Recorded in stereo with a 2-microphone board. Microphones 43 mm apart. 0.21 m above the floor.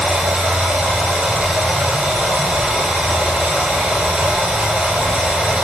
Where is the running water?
20° right (ahead or behind), 1.2 m.